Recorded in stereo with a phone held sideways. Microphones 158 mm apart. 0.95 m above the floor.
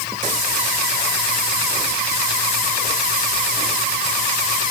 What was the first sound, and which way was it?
Only background noise.